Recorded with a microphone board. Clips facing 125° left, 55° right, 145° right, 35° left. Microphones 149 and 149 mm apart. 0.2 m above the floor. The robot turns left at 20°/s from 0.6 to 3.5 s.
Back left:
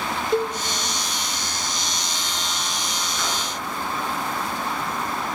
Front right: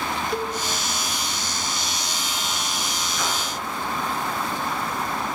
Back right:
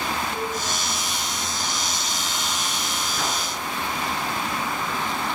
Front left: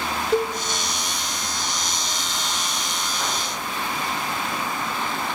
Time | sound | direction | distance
0.3 | a cowbell | 60° left | 0.6 m
3.2 | a whoosh | 150° right | 4 m